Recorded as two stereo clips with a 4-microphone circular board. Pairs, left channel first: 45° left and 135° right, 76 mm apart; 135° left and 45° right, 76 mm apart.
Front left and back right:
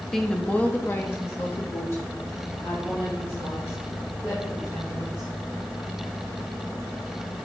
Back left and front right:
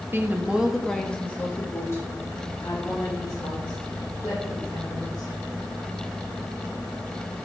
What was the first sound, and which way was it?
A woman speaking, 35° right.